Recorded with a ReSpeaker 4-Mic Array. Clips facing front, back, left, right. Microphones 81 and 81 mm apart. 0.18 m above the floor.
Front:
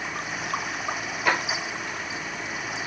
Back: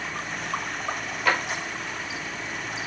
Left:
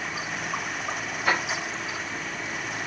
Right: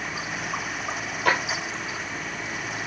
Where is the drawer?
80° right, 1.6 m.